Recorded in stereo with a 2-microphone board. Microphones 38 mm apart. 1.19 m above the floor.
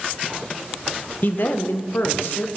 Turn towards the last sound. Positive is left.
turn(degrees=60)  # may be behind; listen again after turning